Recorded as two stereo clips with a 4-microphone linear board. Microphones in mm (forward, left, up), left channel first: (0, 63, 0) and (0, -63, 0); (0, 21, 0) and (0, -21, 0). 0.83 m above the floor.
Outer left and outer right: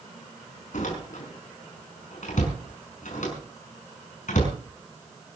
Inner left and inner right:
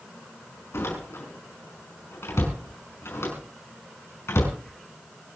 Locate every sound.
0.7 s a door slam: 85° left, 5.5 m